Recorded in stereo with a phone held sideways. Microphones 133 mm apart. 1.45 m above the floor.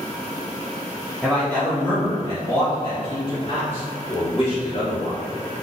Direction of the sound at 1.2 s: 5° left (ahead or behind).